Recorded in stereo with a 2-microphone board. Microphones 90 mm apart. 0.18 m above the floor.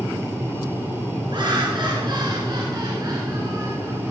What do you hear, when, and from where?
1.3 s laughter: 60° right (ahead or behind), 3 m; by 4.1 s 35° right (ahead or behind), 2.5 m